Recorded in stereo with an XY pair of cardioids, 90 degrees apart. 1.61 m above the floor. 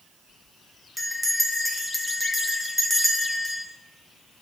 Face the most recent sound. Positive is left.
turn(degrees=0)